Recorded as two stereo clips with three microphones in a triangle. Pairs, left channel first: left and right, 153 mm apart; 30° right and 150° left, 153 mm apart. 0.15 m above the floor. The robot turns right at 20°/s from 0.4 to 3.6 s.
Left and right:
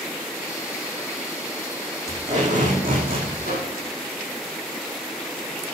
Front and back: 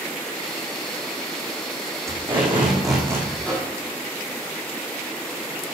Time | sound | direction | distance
2.1 | tape being pulled | 135° right | 6.5 m
3.4 | a microwave | 115° right | 5 m